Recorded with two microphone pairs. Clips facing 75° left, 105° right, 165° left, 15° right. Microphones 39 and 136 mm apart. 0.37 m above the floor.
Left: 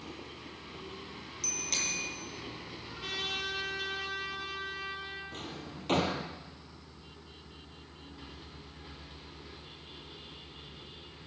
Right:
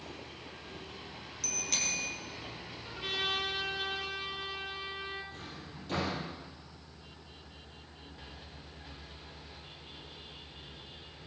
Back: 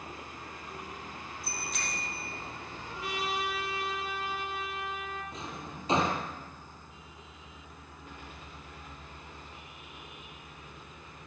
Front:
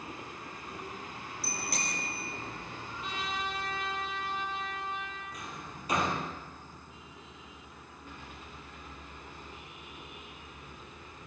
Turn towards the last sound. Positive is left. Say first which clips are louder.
# left 3 dB, back 2 dB
turn(degrees=100)